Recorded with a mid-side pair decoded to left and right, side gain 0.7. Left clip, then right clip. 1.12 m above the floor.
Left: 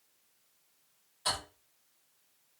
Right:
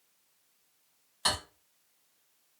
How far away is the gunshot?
No gunshot in this recording.